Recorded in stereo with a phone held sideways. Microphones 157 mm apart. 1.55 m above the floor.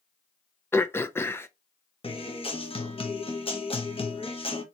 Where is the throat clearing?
15° left (ahead or behind), 0.5 m.